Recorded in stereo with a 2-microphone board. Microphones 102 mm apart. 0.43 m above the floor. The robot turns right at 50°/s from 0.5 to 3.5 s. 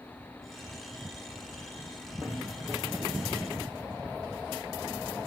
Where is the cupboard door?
45° left (ahead or behind), 4 m; by 2.8 s 70° left (ahead or behind), 4 m.